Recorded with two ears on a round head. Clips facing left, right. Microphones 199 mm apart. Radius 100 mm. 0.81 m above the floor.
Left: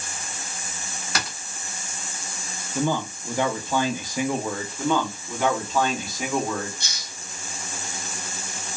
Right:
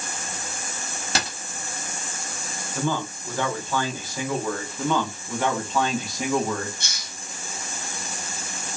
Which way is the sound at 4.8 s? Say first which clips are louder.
Left 2 dB; centre (ahead or behind).